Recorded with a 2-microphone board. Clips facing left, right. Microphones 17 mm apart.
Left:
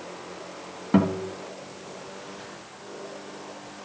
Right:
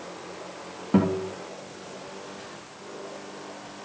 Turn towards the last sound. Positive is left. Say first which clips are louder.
# left 1 dB
turn(degrees=20)  # may be behind; listen again after turning